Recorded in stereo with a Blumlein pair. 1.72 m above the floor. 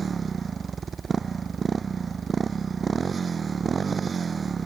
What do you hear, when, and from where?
0.0 s a motorcycle: 20° right